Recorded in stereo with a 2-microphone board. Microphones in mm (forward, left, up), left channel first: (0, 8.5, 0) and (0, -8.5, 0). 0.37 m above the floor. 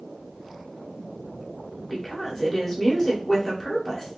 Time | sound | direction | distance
1.9 | a woman speaking | 10° left (ahead or behind) | 1.4 m